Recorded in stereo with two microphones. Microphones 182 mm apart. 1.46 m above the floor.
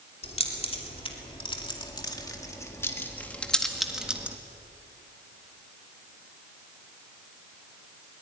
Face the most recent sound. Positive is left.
turn(degrees=-10)  # may be behind; listen again after turning